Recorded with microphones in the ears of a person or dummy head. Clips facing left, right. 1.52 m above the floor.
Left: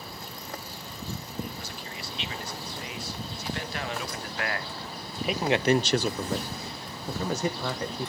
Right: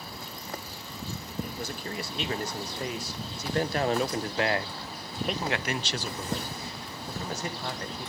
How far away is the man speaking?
About 2.5 m.